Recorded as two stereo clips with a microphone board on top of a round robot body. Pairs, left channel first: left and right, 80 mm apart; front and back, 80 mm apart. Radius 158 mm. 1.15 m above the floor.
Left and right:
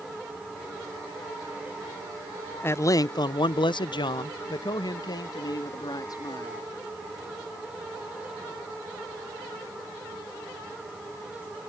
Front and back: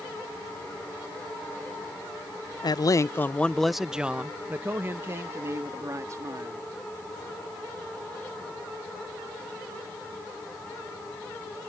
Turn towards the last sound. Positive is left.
turn(degrees=130)